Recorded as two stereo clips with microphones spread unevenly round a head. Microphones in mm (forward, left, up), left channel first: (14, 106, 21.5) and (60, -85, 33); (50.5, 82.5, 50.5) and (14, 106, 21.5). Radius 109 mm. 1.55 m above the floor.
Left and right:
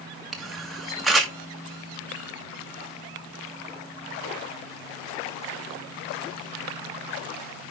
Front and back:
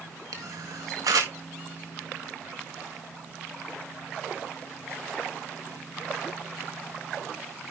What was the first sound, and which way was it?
A camera shutter, 165° right.